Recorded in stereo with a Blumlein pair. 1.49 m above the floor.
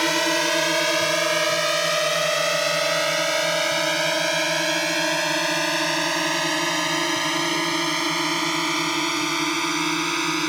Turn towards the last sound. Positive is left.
turn(degrees=0)